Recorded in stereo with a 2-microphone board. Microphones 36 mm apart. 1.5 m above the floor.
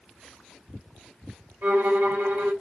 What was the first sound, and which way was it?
A violin, 65° right (ahead or behind).